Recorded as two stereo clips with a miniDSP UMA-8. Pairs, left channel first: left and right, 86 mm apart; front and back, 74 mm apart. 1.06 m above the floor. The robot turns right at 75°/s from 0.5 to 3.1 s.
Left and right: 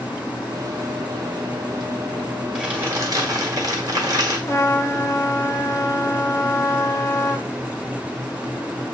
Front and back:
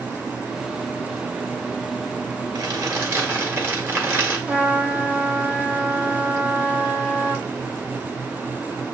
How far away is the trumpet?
About 0.6 m.